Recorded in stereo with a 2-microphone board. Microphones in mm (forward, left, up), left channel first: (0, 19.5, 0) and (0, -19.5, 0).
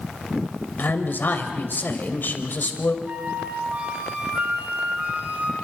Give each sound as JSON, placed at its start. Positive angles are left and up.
{"t": 0.8, "sound": "a man speaking", "side_deg": 55, "distance_m": 3.5}
{"t": 3.0, "sound": "a flute", "side_deg": -45, "distance_m": 3.5}